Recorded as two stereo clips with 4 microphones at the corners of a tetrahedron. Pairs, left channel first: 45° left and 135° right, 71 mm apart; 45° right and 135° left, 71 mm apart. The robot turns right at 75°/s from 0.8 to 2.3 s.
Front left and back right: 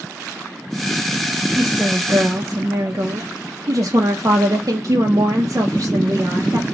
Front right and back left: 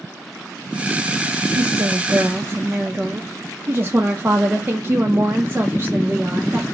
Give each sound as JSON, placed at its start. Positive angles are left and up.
{"t": 1.6, "sound": "a woman speaking", "azimuth_deg": 130, "distance_m": 0.5}